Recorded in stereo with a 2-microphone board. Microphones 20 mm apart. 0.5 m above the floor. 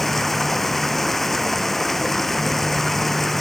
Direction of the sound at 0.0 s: 10° left (ahead or behind).